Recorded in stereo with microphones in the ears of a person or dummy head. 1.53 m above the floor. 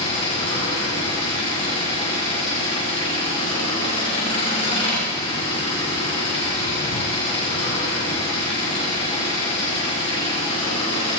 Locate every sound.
0.0 s an engine running: 35° left (ahead or behind), 4.5 m